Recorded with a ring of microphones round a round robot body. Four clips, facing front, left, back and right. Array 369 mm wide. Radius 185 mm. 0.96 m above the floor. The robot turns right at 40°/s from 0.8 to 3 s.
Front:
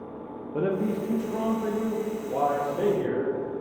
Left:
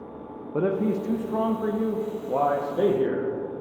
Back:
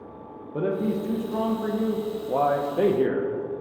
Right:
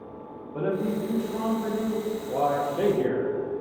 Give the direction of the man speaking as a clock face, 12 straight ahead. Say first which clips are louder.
Left 3 dB, back 1 dB; 9 o'clock.